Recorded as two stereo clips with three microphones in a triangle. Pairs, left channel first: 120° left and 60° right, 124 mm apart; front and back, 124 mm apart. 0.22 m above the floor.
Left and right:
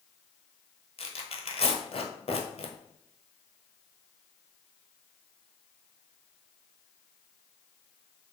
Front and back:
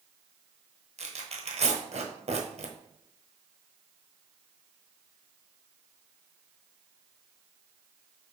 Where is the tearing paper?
150° left, 1.0 m.